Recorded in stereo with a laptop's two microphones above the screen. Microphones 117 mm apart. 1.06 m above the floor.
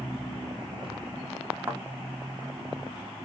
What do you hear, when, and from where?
1.7 s a thud: 20° right (ahead or behind), 0.9 m